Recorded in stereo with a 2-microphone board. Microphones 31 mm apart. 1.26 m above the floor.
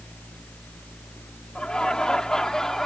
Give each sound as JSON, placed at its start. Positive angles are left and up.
{"t": 1.6, "sound": "laughter", "side_deg": 35}